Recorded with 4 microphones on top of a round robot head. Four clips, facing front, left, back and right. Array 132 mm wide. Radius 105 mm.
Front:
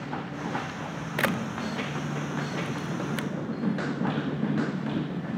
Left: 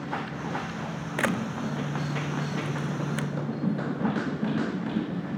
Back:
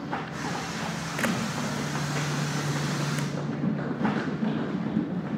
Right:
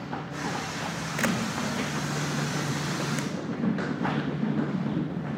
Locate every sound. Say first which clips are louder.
1.2 s a camera shutter: even, front 1 dB; 45° left, 1.2 m